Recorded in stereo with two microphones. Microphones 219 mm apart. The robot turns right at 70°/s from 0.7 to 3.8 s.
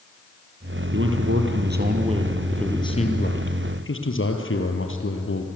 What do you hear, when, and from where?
0.9 s a man speaking: 110° right, 3.5 m; by 5.5 s 90° left, 3.5 m